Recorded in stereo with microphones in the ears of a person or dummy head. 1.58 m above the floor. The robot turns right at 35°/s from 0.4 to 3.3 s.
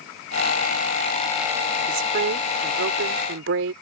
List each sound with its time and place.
1.9 s a woman speaking: 125° right; by 3.7 s 75° right